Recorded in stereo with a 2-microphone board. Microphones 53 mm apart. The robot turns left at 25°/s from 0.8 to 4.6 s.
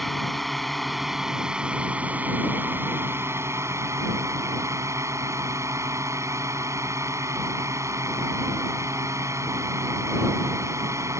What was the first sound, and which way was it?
A drone, straight ahead.